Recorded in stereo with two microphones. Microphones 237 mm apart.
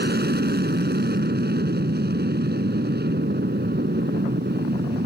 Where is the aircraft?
45° right (ahead or behind).